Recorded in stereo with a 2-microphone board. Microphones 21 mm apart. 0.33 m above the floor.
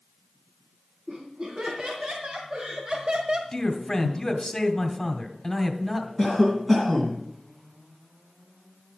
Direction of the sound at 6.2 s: 5° right (ahead or behind).